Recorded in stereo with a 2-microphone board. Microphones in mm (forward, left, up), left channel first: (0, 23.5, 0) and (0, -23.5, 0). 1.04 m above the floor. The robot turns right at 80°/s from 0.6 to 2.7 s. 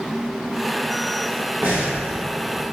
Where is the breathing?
45° right (ahead or behind), 1.3 m; by 2.0 s 20° right (ahead or behind), 1.3 m.